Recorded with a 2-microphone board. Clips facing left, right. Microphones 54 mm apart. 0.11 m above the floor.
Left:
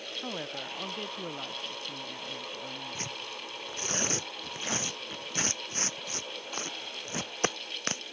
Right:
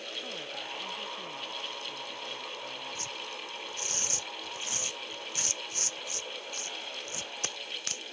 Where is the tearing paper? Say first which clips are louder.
Left 1 dB; 40° left (ahead or behind).